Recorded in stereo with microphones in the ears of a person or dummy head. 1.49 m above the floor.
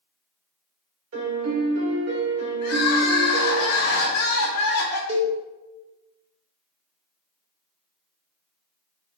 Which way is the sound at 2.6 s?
55° left (ahead or behind).